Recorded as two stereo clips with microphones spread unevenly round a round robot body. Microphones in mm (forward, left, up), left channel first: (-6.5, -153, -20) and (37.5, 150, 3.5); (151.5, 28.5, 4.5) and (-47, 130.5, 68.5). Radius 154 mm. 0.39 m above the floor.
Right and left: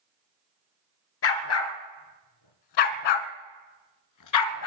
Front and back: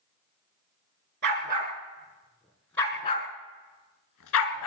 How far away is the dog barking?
About 1.7 m.